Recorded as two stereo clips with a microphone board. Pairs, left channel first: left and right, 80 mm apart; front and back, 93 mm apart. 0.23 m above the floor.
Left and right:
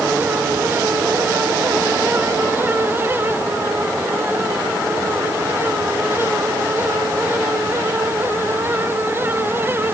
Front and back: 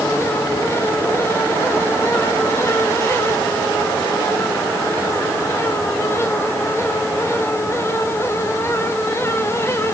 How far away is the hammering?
No hammering in this recording.